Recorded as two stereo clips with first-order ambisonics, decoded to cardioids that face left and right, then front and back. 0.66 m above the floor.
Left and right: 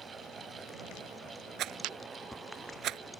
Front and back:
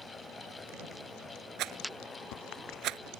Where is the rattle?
135° right.